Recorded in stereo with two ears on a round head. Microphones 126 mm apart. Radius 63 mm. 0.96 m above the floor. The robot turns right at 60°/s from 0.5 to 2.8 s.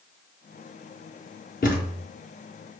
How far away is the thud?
About 3.5 m.